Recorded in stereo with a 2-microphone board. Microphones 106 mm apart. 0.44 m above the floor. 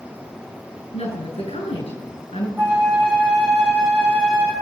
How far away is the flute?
About 4 m.